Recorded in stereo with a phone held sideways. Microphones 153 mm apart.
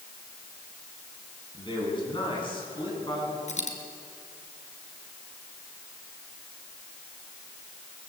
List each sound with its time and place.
1.5 s a man speaking: 30° left (ahead or behind), 9.5 m
3.5 s a dropped coin: 50° left (ahead or behind), 3 m